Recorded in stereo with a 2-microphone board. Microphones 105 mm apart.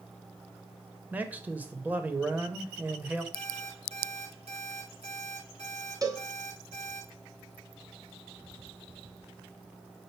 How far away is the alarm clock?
About 3.5 m.